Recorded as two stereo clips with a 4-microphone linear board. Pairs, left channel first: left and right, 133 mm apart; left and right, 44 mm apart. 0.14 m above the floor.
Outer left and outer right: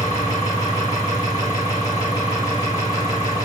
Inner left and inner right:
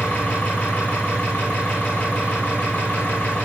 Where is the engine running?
30° left (ahead or behind), 6 m.